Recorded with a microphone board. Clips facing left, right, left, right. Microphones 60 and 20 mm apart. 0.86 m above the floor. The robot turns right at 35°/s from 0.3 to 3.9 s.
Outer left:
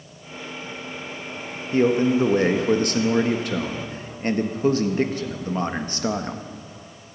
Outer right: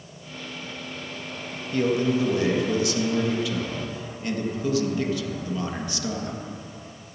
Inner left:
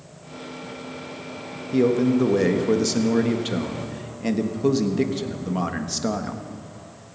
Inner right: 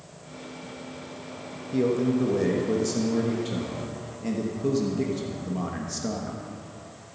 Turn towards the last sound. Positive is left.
turn(degrees=115)